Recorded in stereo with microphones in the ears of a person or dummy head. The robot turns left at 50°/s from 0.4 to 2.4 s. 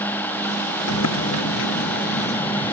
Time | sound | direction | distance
0.9 | a sliding door | 110° left | ?